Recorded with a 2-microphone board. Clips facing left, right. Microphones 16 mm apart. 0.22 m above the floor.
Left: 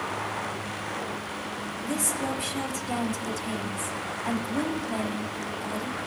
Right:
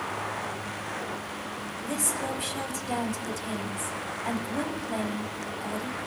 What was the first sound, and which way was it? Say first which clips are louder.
A woman speaking: left 1 dB; 10° right (ahead or behind).